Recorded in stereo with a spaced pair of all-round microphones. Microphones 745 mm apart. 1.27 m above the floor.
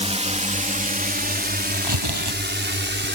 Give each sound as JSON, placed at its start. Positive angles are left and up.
{"t": 0.0, "sound": "a drone", "side_deg": -10}
{"t": 1.7, "sound": "tearing paper", "side_deg": -30}